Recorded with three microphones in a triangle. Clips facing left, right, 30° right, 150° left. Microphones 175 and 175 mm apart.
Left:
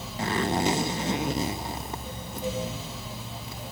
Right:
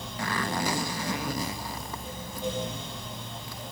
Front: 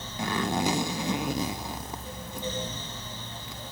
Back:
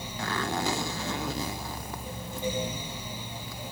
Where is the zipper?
35° left, 0.8 m.